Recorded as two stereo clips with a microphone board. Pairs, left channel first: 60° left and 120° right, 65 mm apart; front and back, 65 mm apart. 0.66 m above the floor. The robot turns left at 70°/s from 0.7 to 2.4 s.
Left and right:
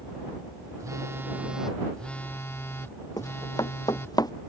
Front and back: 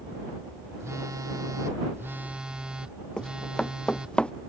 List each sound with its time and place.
0.8 s a phone buzzing: 140° right; by 4.2 s 105° left
3.2 s running footsteps: 80° left; by 4.3 s 75° left